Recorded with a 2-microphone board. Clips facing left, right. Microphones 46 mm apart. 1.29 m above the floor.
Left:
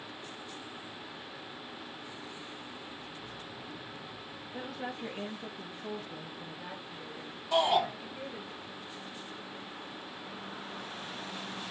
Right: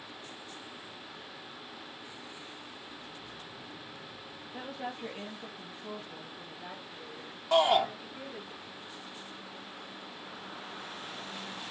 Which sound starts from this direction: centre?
A woman speaking, at 4.5 s.